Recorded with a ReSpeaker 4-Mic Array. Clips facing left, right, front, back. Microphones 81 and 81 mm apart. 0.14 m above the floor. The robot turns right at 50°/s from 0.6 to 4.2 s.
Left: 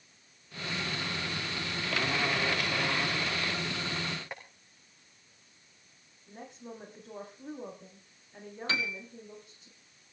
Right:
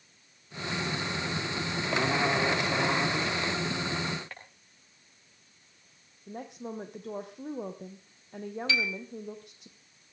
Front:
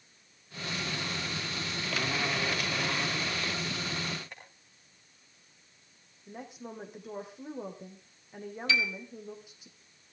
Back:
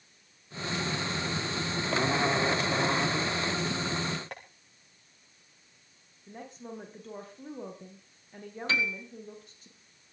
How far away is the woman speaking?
About 4.5 m.